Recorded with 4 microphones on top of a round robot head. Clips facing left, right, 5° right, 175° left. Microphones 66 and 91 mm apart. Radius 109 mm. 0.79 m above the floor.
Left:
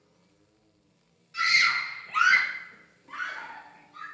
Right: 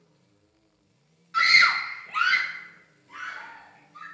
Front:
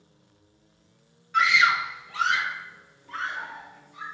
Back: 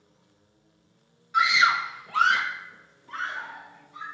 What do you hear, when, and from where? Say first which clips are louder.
1.3 s a scream: right 5 dB, even; 105° right, 1.0 m; by 4.0 s 110° left, 2.5 m